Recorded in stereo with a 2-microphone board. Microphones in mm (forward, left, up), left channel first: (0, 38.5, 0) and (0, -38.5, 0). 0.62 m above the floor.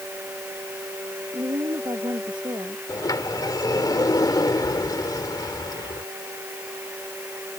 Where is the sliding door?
60° left (ahead or behind).